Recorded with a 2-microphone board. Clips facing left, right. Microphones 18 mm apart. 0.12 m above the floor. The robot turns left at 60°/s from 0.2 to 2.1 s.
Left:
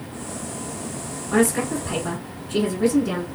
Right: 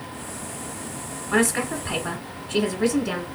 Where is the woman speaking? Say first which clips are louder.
Left 2 dB; 15° right (ahead or behind), 1.1 m; by 3.2 s 20° right (ahead or behind), 1.1 m.